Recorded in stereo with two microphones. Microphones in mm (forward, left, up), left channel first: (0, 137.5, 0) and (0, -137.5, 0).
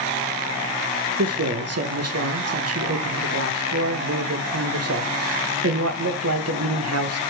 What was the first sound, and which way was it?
A man speaking, 60° right (ahead or behind).